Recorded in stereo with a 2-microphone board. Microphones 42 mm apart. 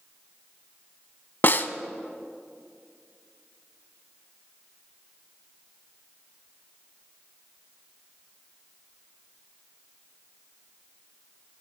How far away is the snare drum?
About 0.5 m.